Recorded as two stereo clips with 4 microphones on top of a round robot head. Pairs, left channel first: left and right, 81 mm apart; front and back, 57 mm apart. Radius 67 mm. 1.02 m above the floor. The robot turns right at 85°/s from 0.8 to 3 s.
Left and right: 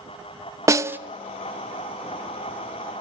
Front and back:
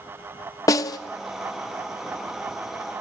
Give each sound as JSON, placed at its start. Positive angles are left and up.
{"t": 0.7, "sound": "a snare drum", "azimuth_deg": -35, "distance_m": 0.6}